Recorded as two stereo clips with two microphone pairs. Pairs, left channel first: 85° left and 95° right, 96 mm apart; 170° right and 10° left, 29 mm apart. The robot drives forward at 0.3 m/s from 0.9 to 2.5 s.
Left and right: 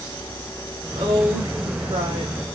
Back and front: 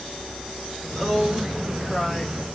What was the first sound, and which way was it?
A woman speaking, 85° right.